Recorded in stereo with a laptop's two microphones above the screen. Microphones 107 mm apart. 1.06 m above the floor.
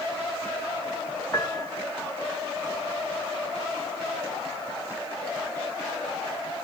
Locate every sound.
1.3 s a piano: 30° left (ahead or behind), 0.9 m